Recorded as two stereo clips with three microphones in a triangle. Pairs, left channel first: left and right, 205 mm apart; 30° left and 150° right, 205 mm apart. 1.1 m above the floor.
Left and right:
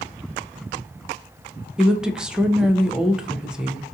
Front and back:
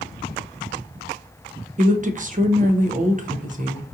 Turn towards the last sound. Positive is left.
turn(degrees=-175)